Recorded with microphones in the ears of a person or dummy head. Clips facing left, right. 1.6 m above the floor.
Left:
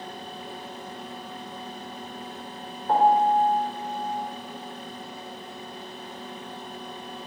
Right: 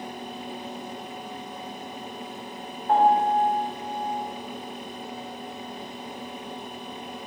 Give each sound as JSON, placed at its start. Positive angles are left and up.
{"t": 2.9, "sound": "a piano", "side_deg": 70, "distance_m": 1.2}